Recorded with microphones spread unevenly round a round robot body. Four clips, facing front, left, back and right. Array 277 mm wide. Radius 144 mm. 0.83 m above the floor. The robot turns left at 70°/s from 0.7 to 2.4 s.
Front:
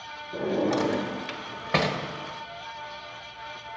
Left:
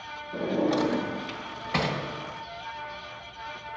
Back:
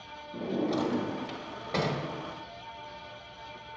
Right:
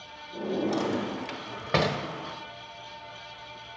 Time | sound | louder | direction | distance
0.3 | a drawer | left 3 dB, front 5 dB | 20° left | 1.3 m